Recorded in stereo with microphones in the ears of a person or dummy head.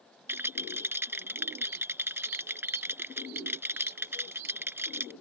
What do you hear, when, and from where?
0.3 s a rattle: 10° right (ahead or behind)